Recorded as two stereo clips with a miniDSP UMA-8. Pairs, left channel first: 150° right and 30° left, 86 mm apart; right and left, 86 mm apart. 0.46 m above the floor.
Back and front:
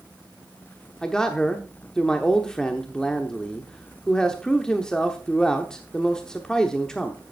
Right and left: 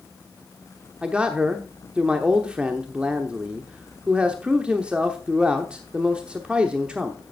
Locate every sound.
1.0 s a man speaking: 145° left, 0.9 m